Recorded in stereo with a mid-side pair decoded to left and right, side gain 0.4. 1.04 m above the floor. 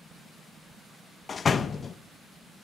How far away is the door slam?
About 0.7 m.